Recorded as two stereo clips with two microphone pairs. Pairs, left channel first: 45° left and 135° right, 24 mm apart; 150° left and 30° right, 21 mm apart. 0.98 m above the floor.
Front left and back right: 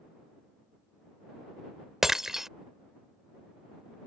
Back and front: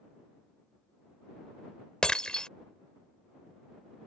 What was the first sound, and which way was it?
Breaking glass, 165° left.